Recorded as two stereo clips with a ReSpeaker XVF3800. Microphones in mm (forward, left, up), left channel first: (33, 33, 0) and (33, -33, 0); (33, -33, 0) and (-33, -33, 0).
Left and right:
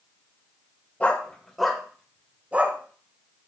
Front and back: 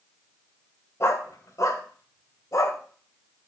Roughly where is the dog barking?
Ahead left.